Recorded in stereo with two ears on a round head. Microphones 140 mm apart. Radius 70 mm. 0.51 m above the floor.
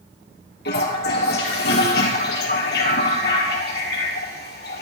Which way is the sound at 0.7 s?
75° left (ahead or behind).